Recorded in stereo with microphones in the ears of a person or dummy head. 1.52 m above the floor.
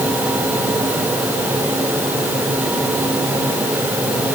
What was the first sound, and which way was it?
Only background noise.